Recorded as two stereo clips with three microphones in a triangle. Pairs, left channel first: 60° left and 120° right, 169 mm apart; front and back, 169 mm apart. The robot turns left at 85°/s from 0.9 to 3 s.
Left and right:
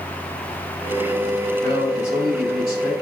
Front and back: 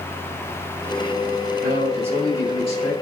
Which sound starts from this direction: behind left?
A man speaking, at 1.6 s.